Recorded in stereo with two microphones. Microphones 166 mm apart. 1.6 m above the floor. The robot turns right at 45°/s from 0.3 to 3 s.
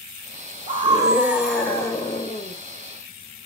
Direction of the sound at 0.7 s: 35° right.